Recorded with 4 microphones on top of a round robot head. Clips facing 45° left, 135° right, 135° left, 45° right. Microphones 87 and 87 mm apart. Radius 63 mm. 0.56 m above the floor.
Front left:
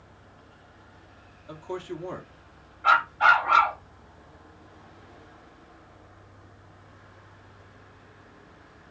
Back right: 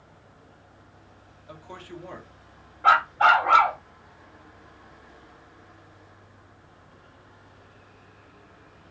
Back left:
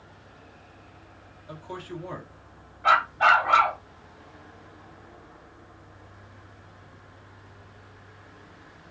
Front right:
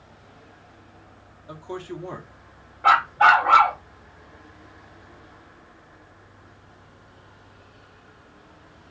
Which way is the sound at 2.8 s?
85° right.